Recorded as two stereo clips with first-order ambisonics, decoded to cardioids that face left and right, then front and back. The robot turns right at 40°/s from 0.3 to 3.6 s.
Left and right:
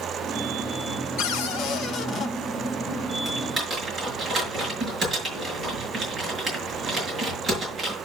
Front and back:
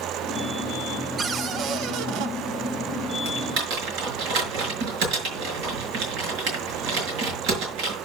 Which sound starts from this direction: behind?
Typing on a keyboard, at 3.2 s.